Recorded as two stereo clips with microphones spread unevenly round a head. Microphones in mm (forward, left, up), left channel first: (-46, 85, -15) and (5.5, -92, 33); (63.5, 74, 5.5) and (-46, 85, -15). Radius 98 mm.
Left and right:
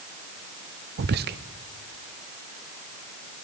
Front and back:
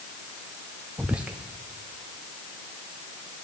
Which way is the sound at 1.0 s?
100° right.